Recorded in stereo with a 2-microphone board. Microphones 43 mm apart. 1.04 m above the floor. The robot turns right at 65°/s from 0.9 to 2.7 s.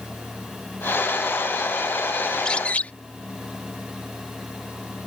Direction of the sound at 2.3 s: 10° left (ahead or behind).